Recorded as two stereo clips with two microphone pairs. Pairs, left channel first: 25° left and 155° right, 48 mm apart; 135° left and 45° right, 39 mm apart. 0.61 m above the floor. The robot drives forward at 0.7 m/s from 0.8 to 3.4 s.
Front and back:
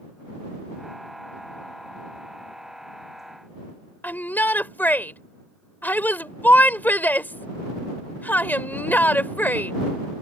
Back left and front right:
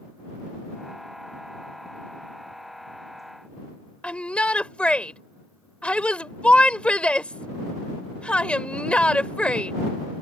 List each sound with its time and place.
4.0 s a shout: 75° left